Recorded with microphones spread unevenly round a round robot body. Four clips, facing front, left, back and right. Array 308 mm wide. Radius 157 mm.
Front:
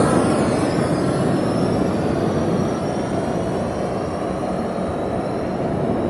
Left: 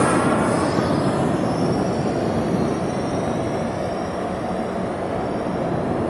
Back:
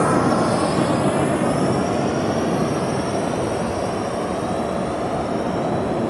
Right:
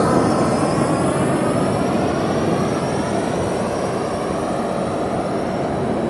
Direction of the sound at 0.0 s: 35° right.